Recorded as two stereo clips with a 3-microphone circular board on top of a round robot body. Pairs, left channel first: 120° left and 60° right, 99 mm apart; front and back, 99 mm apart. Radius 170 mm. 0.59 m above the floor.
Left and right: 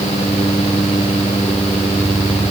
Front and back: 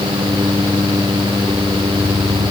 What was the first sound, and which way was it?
Only background noise.